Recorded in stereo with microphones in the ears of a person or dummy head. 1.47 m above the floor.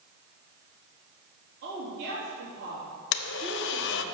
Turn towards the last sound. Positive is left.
turn(degrees=60)  # may be behind; listen again after turning